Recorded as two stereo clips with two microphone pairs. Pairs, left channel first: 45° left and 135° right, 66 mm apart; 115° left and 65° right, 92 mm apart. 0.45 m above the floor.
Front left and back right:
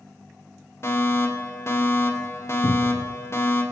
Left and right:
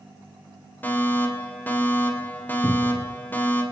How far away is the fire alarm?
About 2.5 m.